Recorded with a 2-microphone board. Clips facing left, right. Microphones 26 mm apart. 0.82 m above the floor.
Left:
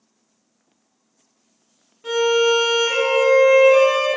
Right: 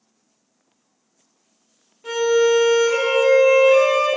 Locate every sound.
2.0 s a violin: 10° left (ahead or behind), 1.5 m